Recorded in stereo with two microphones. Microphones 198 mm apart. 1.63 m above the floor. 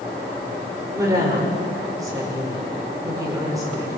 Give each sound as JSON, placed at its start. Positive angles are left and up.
{"t": 0.9, "sound": "a woman speaking", "side_deg": -20, "distance_m": 5.5}